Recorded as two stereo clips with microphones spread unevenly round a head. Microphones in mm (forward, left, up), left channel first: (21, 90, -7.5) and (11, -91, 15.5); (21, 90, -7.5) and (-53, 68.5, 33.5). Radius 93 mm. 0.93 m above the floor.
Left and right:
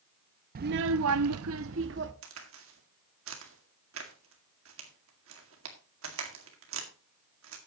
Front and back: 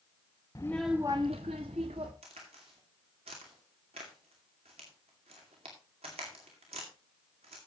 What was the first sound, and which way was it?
A child speaking, 50° right.